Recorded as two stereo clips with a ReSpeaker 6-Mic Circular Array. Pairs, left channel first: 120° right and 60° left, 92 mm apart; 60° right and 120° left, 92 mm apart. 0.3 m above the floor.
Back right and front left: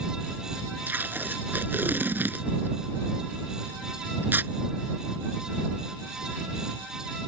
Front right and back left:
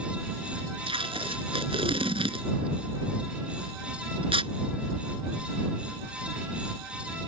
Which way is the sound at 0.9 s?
130° left.